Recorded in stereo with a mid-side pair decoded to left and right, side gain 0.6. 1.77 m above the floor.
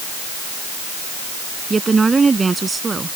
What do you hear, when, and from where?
1.7 s a woman speaking: 25° right